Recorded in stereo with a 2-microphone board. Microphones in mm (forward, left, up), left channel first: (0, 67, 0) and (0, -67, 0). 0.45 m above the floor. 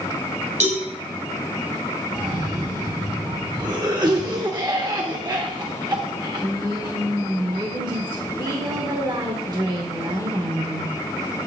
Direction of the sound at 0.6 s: 70° right (ahead or behind).